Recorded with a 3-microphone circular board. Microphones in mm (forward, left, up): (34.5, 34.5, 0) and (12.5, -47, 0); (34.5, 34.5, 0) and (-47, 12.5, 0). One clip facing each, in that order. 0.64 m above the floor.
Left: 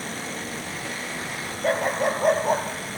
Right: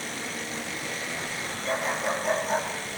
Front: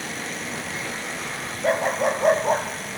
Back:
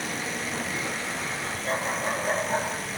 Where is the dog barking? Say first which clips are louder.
Left 6 dB, front 8 dB; 40° left, 3 m.